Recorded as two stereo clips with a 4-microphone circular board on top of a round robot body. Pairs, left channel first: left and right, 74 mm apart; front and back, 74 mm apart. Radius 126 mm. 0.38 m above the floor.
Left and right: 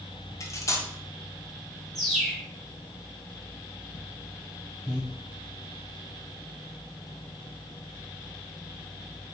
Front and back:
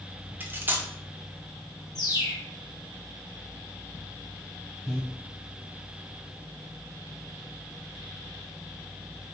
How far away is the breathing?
About 2.0 m.